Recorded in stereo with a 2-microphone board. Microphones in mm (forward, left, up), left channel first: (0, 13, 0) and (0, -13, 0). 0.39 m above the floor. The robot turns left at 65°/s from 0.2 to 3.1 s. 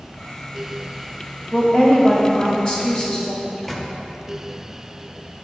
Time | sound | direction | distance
1.5 | a woman speaking | 140° left | 1.4 m
3.4 | a microwave | 10° left (ahead or behind) | 0.6 m